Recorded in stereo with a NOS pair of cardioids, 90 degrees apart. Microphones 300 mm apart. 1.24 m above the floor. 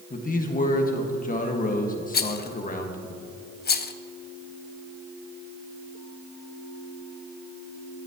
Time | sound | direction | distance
0.1 | a man speaking | 30° left | 1.5 m
2.1 | a rattle | 35° left | 0.6 m